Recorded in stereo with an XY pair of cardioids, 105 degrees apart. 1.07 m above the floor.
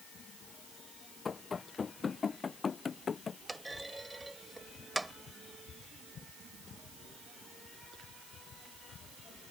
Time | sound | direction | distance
1.2 | running footsteps | 35° left | ?
3.5 | a clunk | 10° right | ?